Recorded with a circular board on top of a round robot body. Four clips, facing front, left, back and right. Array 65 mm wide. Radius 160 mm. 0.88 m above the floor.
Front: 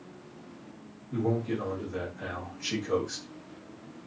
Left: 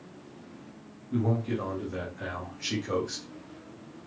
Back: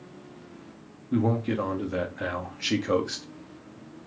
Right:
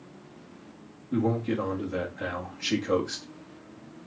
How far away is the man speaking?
About 1.5 m.